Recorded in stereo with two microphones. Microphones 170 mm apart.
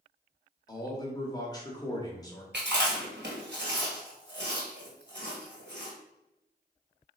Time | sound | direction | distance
0.7 | a man speaking | 20° left (ahead or behind) | 0.8 m
2.5 | chewing | 75° right (ahead or behind) | 1.4 m